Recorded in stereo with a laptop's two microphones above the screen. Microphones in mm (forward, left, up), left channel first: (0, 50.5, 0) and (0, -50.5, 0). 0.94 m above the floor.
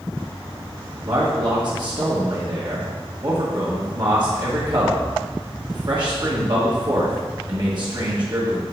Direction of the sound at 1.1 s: 50° right (ahead or behind).